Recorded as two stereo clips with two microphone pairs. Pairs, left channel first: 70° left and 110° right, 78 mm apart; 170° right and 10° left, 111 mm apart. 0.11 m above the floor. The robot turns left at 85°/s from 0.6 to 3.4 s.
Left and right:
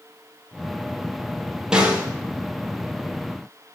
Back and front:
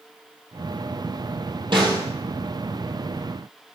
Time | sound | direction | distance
1.7 | a snare drum | 30° right | 2.5 m